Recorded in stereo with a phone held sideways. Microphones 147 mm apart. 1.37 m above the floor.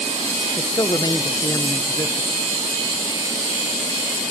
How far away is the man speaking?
About 0.8 m.